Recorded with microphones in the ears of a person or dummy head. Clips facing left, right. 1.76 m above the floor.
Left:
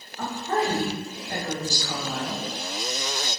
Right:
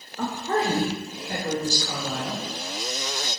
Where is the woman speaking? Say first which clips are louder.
Right 1 dB; 65° right (ahead or behind), 0.5 m; by 2.4 s 35° right (ahead or behind), 1.6 m.